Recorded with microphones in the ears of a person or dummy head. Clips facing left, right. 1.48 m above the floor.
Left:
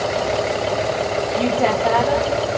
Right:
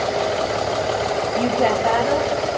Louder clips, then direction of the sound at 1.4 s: Even; 10° right (ahead or behind).